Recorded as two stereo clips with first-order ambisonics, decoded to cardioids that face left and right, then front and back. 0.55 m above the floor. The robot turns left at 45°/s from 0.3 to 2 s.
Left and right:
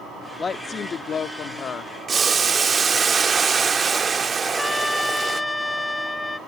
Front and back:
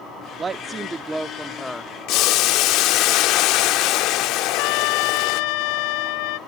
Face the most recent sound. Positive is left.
turn(degrees=5)